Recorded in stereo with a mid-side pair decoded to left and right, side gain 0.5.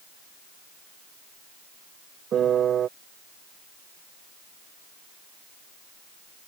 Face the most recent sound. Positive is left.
turn(degrees=-55)